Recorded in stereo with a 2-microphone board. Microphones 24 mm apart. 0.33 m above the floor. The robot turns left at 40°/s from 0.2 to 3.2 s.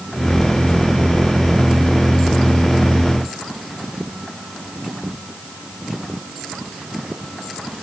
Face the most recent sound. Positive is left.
No sound to turn to.